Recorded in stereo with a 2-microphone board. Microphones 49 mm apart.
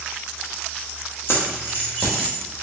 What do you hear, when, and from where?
1.3 s keys jangling: 55° left (ahead or behind), 1.1 m; by 2.4 s 10° left (ahead or behind), 1.5 m